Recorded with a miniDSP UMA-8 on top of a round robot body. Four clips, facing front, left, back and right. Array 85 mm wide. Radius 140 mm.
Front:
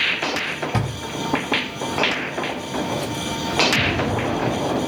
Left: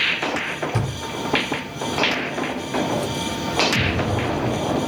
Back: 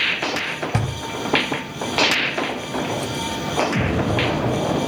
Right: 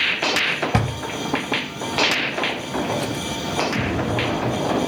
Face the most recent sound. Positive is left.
turn(degrees=170)